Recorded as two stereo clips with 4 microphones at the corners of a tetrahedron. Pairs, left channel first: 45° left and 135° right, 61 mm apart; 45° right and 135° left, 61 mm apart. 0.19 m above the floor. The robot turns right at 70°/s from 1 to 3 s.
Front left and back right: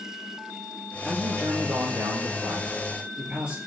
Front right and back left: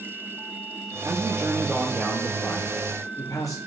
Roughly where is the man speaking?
Behind.